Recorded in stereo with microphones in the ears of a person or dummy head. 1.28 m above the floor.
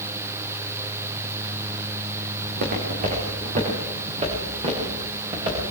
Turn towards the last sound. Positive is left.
turn(degrees=-25)  # may be behind; listen again after turning